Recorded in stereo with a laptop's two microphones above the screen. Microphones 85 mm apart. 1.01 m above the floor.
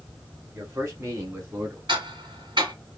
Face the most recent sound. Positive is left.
turn(degrees=-70)  # may be behind; listen again after turning